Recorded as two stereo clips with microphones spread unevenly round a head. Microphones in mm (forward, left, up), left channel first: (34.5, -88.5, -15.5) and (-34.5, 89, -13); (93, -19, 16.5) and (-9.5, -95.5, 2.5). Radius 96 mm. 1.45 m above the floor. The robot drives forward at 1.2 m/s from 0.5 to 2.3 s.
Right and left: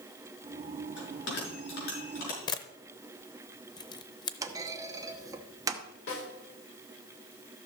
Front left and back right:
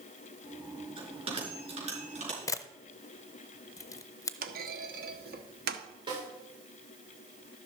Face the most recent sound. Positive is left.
turn(degrees=-95)